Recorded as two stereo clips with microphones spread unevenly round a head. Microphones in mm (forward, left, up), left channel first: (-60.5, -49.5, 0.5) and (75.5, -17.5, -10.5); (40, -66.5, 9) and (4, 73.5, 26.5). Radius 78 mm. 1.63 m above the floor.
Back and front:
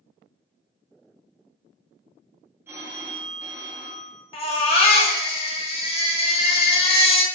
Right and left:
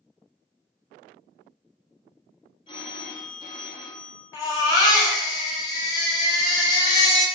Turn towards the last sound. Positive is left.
turn(degrees=-145)